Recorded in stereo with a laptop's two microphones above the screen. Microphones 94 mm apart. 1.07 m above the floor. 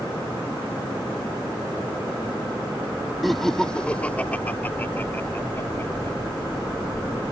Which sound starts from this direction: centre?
Laughter, at 3.2 s.